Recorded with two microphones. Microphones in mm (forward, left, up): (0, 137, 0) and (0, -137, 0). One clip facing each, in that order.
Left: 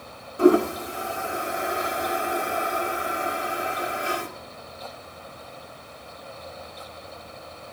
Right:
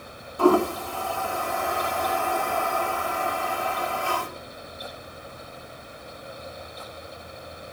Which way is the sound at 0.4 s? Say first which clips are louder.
Left 2 dB; 20° left (ahead or behind).